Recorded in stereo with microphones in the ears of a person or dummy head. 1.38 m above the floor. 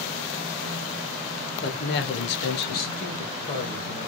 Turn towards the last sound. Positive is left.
turn(degrees=25)  # may be behind; listen again after turning